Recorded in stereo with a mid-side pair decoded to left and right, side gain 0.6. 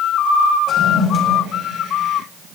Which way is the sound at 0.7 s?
40° left.